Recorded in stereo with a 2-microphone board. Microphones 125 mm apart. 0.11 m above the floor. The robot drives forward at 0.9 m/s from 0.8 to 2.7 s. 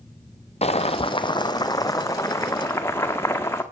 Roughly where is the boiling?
Left.